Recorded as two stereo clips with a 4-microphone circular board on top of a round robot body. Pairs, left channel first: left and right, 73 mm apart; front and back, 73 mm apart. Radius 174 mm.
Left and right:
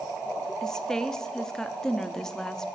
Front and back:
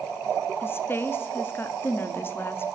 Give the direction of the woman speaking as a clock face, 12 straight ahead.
12 o'clock.